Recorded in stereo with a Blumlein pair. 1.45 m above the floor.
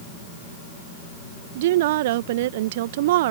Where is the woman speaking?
55° right.